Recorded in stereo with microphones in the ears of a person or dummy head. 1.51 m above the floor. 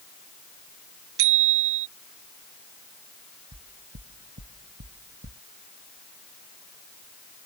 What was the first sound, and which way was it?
A bicycle bell, 75° right (ahead or behind).